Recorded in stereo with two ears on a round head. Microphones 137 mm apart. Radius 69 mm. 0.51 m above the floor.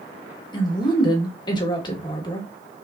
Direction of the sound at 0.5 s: 30° left (ahead or behind).